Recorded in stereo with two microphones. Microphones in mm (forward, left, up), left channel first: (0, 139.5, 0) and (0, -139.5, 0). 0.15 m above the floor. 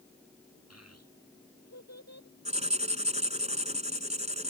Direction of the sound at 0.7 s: 60° left (ahead or behind).